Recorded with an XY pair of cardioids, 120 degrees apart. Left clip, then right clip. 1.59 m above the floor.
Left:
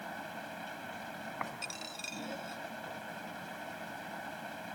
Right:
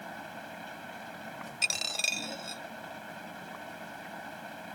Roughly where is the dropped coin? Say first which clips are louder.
Right 12 dB; right.